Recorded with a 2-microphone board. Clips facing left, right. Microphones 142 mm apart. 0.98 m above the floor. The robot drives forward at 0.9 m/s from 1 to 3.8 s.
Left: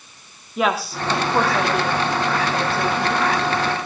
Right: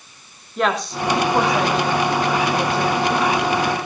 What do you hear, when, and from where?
0.6 s a woman speaking: 5° left (ahead or behind), 2.5 m